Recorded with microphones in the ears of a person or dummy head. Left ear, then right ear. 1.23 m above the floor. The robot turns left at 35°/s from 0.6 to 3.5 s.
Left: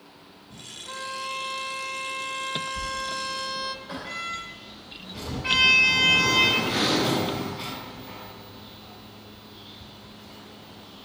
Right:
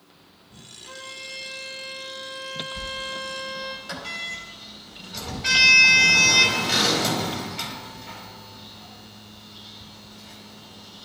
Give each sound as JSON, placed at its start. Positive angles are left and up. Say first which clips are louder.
{"t": 0.8, "sound": "a violin", "louder": "left 5 dB", "azimuth_deg": -155, "distance_m": 1.1}
{"t": 2.8, "sound": "a sliding door", "louder": "left 1 dB", "side_deg": -45, "distance_m": 3.5}